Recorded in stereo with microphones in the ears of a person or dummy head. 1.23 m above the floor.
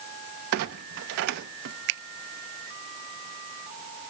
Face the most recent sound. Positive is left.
turn(degrees=-70)  # may be behind; listen again after turning